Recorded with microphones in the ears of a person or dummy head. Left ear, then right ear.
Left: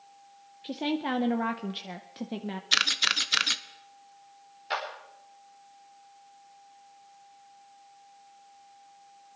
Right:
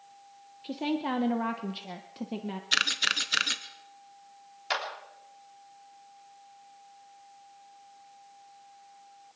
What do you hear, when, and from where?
0.6 s a woman speaking: 10° left (ahead or behind), 0.7 m
2.7 s a camera shutter: 5° left (ahead or behind), 0.5 m
4.7 s a clap: 35° right (ahead or behind), 3.5 m